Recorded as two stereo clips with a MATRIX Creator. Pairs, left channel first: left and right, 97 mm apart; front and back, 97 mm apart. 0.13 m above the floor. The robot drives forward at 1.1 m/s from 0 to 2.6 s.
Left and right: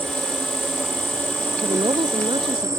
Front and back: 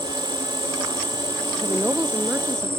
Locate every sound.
0.0 s an insect: 20° right; by 2.8 s 30° right
1.6 s a woman speaking: 105° right; by 2.7 s 115° right